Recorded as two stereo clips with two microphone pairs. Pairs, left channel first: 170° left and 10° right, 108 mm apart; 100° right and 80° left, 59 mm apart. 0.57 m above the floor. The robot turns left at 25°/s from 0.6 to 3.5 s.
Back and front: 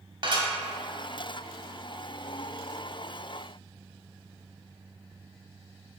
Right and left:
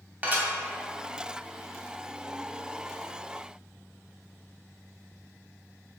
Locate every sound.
0.2 s dishes clattering: 25° left, 0.7 m